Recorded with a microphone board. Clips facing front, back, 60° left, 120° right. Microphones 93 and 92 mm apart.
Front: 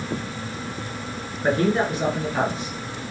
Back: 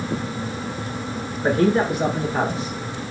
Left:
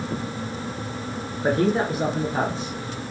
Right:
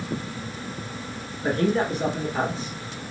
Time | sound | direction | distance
1.4 | a man speaking | 100° left | 1.7 m